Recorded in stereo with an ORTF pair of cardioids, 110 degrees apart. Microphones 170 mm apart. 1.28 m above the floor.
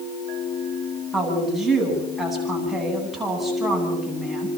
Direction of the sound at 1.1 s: Straight ahead.